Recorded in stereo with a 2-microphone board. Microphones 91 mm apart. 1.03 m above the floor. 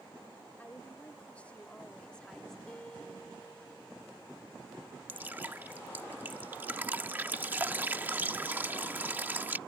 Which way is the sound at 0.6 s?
20° left (ahead or behind).